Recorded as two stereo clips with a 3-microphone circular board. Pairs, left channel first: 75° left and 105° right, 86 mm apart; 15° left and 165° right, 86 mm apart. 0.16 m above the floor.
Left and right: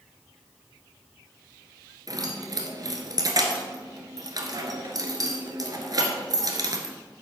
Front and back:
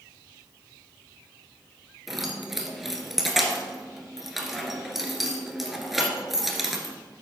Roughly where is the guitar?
I don't hear a guitar.